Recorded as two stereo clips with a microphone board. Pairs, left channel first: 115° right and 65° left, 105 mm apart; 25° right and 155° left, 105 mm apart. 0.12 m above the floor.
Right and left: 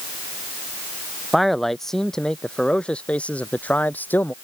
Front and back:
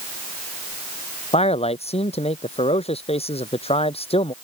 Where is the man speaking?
25° right; by 4.3 s 40° right.